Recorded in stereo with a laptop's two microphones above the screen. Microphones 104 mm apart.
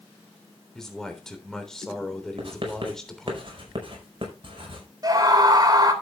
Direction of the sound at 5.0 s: 40° right (ahead or behind).